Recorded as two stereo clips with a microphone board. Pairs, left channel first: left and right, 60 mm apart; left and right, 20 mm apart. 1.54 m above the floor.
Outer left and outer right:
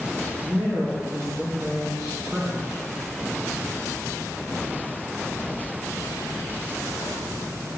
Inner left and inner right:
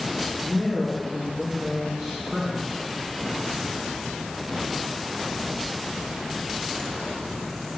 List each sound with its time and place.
0.4 s a man speaking: 15° right (ahead or behind), 3 m